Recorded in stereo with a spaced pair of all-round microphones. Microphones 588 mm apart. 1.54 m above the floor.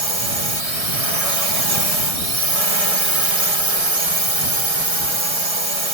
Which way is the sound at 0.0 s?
65° right (ahead or behind).